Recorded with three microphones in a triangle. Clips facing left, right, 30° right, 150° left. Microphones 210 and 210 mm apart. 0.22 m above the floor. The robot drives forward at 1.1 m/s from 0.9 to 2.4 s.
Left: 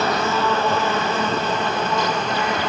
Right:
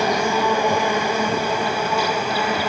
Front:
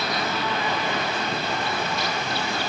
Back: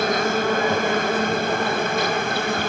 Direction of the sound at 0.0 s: 170° right.